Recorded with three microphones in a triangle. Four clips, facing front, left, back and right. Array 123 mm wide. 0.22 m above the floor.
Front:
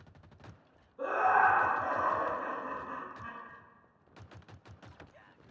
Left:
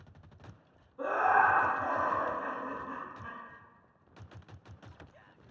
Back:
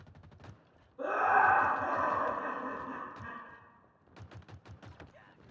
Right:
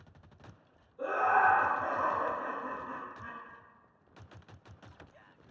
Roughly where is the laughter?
Left.